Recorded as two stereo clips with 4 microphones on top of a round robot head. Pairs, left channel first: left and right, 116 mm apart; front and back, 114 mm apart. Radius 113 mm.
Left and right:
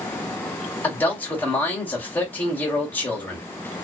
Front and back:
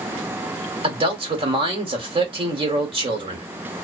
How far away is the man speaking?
About 1.4 m.